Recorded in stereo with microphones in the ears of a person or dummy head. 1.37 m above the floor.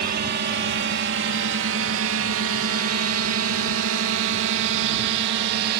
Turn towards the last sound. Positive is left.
turn(degrees=-50)  # may be behind; listen again after turning